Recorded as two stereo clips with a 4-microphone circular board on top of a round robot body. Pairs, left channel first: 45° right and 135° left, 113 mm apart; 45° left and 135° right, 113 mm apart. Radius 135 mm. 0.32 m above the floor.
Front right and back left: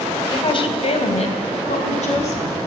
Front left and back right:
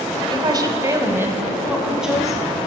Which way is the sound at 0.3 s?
90° right.